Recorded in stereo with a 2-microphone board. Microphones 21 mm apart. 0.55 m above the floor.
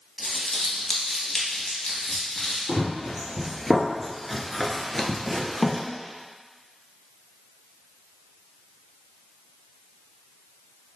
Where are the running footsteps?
5° right (ahead or behind), 1.2 m; by 5.8 s 15° left (ahead or behind), 1.0 m.